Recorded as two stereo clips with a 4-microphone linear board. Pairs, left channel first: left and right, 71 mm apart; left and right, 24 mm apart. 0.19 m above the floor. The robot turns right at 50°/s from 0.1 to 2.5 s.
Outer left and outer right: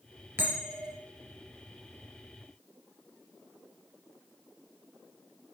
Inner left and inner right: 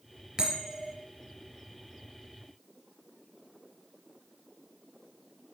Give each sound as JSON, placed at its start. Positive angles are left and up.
{"t": 0.4, "sound": "a bell", "side_deg": -35, "distance_m": 3.5}